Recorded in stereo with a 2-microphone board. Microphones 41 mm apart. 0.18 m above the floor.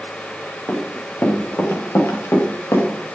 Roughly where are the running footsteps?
Left.